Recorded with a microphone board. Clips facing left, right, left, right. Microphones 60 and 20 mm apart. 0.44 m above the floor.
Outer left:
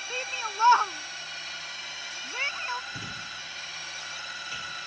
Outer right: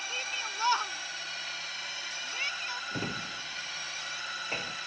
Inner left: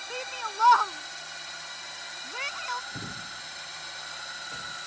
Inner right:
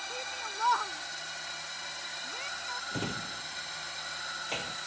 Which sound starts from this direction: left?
A shout, at 0.1 s.